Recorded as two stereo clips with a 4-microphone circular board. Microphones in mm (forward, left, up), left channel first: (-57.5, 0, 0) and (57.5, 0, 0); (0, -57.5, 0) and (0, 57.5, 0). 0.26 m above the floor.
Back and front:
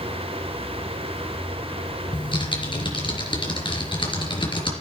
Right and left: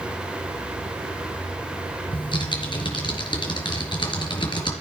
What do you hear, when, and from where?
2.1 s typing on a keyboard: 135° right, 3.5 m